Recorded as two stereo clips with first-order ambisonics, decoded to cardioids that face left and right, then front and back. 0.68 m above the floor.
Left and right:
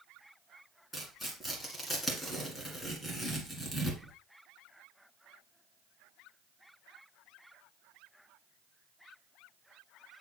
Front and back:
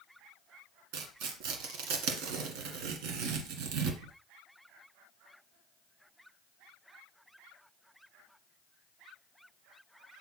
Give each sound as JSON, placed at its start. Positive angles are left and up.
{"t": 0.9, "sound": "tearing paper", "azimuth_deg": 175, "distance_m": 1.7}